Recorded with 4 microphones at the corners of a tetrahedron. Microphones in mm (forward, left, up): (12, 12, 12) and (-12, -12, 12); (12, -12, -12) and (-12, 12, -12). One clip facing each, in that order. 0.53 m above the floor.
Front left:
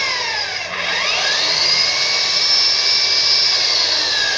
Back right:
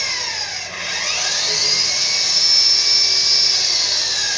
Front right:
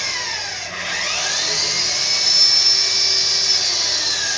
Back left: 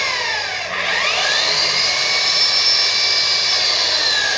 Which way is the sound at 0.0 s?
95° left.